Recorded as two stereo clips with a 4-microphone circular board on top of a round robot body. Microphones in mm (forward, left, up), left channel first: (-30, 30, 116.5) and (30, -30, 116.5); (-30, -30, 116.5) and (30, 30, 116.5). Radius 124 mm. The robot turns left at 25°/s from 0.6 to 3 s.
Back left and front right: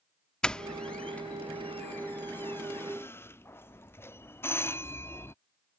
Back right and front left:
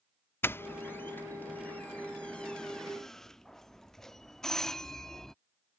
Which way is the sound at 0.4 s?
155° right.